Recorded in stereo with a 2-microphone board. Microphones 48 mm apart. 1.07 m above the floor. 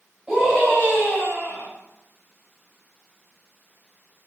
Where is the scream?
5° right (ahead or behind), 8 m; by 1.7 s 5° left (ahead or behind), 7.5 m.